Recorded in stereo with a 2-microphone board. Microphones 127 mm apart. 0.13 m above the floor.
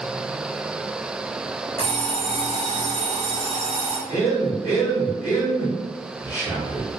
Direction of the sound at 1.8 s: 50° right (ahead or behind).